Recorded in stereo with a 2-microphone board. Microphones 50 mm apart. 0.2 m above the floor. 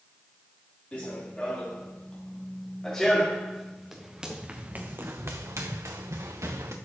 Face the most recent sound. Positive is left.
turn(degrees=-75)  # may be behind; listen again after turning